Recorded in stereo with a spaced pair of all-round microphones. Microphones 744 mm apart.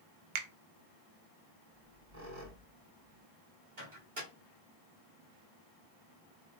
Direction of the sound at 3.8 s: 75° right (ahead or behind).